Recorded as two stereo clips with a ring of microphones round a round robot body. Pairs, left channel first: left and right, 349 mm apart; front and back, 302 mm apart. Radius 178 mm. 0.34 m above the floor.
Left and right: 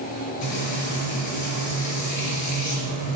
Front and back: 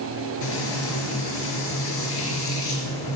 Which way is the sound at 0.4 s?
45° left.